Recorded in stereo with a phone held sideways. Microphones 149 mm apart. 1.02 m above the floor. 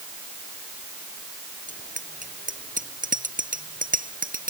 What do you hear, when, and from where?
1.7 s a bicycle bell: 60° right (ahead or behind); by 4.5 s 65° right (ahead or behind)